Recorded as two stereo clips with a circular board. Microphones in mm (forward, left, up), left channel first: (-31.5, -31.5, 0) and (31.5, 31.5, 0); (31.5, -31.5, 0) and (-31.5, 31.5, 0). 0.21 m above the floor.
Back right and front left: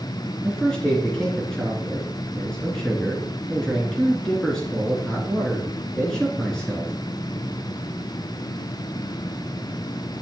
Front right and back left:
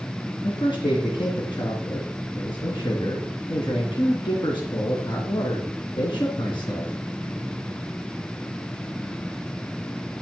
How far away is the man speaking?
About 3 m.